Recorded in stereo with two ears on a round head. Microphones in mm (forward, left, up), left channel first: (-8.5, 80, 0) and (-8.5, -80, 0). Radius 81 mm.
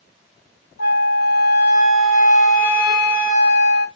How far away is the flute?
About 1.4 m.